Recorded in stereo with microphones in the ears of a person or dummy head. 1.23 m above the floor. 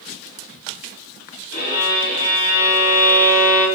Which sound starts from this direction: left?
A violin, at 1.5 s.